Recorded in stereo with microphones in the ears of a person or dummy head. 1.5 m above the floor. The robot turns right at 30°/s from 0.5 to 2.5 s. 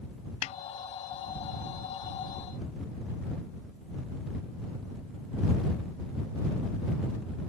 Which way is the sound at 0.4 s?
45° left (ahead or behind).